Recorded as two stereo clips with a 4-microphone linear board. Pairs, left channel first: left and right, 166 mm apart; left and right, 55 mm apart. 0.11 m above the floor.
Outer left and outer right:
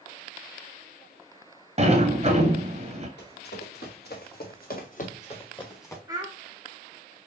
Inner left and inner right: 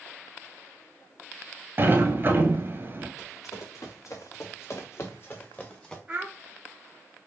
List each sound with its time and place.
1.8 s a sliding door: 40° right (ahead or behind), 0.8 m
3.2 s running footsteps: 90° left, 2.5 m; by 6.0 s 15° left (ahead or behind), 1.3 m
6.1 s a child speaking: 20° right (ahead or behind), 0.9 m